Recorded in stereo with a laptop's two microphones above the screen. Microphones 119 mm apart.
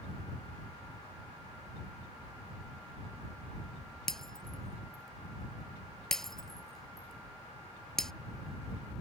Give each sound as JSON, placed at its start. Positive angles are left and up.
{"t": 4.1, "sound": "breaking glass", "side_deg": 5}